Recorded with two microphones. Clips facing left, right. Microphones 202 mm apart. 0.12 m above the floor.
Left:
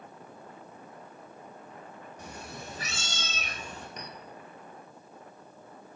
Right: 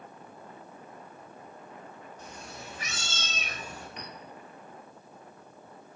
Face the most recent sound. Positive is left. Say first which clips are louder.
# even
turn(degrees=45)  # may be behind; listen again after turning